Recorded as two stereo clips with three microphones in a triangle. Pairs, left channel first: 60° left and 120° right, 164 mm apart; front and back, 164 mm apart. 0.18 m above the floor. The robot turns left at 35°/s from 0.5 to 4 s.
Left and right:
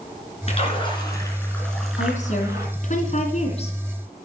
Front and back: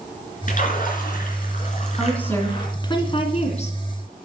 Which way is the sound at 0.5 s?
20° left.